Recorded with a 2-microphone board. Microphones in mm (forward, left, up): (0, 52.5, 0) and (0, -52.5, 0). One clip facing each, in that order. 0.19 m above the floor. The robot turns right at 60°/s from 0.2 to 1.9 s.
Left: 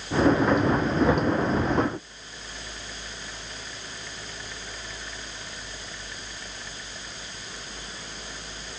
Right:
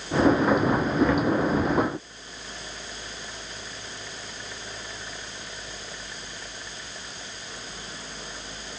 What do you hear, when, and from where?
1.0 s knocking: 15° left (ahead or behind), 3 m; by 1.3 s 30° left (ahead or behind), 3 m